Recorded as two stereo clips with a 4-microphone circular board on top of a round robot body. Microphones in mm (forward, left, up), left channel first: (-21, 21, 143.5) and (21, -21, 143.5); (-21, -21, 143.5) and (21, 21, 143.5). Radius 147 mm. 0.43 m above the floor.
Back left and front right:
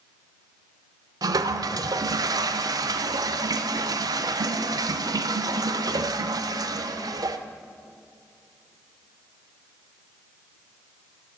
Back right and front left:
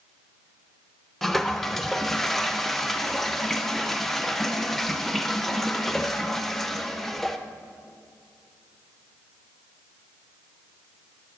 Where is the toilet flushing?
45° right, 0.5 m.